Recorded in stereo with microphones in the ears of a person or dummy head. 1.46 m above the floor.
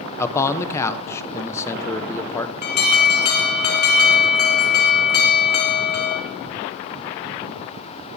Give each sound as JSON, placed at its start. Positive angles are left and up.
{"t": 0.2, "sound": "a man speaking", "side_deg": 20, "distance_m": 1.0}
{"t": 2.6, "sound": "an alarm", "side_deg": 55, "distance_m": 2.0}